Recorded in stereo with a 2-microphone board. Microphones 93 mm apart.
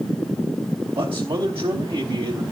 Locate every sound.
0.9 s a man speaking: 70° right (ahead or behind), 3.5 m